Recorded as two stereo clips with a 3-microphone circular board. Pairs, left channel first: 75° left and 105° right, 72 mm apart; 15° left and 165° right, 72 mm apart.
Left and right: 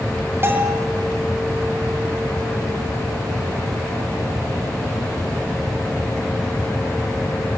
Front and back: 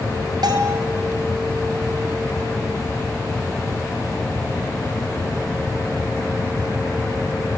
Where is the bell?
160° right, 3 m.